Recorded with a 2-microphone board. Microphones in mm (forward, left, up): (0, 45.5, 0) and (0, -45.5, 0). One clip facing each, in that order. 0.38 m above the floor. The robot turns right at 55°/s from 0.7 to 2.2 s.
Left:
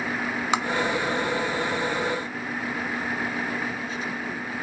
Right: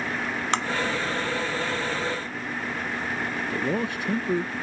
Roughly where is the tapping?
Centre.